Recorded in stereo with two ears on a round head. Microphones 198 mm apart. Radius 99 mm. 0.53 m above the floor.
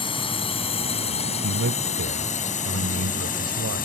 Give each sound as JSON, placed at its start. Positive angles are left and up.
{"t": 0.0, "sound": "a drone", "side_deg": 25}
{"t": 1.4, "sound": "a man speaking", "side_deg": -65}